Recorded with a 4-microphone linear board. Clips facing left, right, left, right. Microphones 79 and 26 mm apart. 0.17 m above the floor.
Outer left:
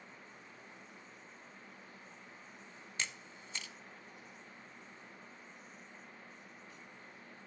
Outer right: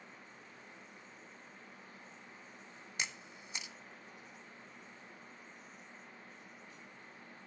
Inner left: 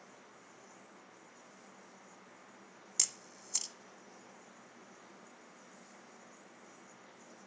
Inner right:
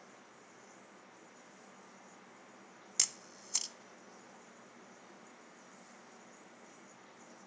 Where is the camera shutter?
20° right (ahead or behind), 0.6 m.